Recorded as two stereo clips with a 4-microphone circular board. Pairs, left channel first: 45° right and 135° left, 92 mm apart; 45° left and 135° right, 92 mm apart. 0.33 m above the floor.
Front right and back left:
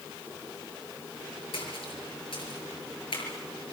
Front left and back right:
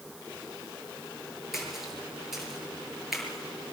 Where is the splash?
50° right, 6 m.